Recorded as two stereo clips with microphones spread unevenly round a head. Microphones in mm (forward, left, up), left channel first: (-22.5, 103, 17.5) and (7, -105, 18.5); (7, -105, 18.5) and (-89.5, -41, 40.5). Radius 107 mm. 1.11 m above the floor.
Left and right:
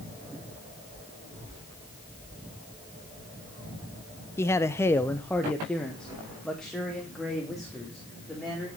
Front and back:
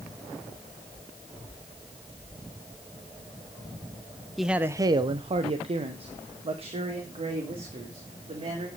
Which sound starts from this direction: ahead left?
A man speaking, at 4.4 s.